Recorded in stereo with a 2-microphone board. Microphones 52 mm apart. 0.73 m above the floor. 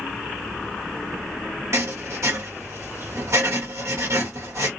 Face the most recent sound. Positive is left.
turn(degrees=-65)  # may be behind; listen again after turning